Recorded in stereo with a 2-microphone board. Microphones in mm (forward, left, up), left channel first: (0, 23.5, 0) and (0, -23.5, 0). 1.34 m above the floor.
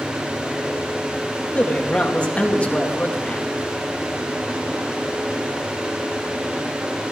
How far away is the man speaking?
About 1.9 m.